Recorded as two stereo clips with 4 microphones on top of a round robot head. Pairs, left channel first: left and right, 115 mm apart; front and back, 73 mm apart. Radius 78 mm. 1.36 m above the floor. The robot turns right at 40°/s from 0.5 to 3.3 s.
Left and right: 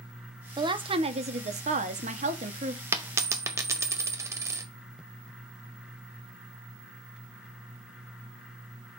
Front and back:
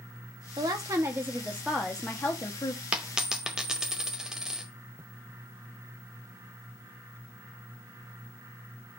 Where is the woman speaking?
140° right, 1.3 m; by 2.8 s 50° right, 1.3 m.